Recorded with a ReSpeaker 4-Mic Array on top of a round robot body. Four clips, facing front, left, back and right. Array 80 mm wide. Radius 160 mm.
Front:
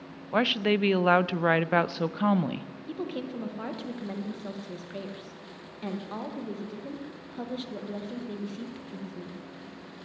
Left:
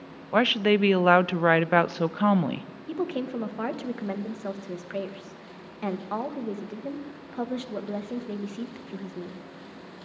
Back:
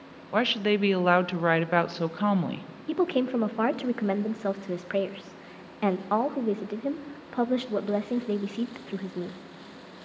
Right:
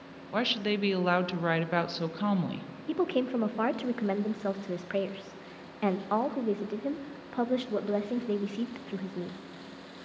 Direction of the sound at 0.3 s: 90° left.